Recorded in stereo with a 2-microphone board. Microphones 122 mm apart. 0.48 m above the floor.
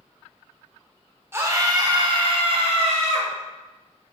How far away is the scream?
About 1.0 m.